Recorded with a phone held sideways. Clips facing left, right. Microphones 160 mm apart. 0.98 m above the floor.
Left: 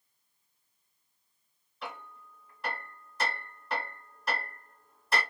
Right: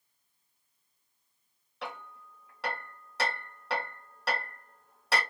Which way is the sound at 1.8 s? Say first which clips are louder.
Right 1 dB; 75° right (ahead or behind).